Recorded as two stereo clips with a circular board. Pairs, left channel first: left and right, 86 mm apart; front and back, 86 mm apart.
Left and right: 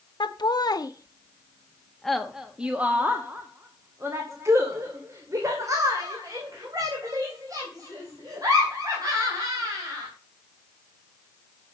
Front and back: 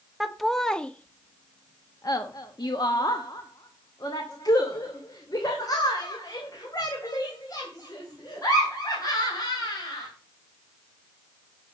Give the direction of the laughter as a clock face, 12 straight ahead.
9 o'clock.